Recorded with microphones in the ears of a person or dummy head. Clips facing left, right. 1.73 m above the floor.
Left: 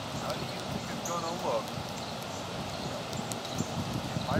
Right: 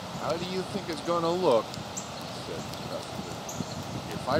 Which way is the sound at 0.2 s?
55° right (ahead or behind).